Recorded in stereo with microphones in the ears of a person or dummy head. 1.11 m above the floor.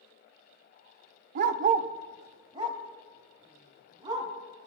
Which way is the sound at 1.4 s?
45° right (ahead or behind).